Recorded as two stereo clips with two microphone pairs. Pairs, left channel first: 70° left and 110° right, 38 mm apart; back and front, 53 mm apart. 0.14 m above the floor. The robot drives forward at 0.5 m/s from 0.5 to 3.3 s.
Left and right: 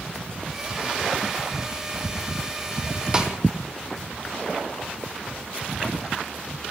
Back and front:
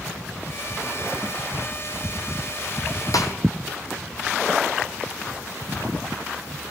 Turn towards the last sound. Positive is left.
turn(degrees=175)